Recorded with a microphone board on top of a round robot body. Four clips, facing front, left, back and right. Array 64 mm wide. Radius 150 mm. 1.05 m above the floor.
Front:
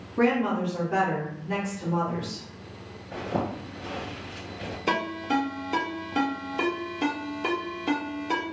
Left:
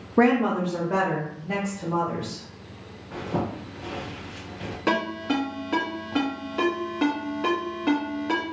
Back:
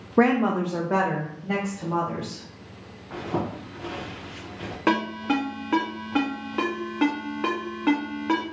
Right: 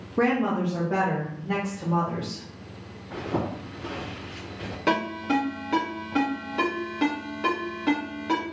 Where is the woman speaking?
150° left, 0.5 m; by 2.4 s 175° right, 2.5 m.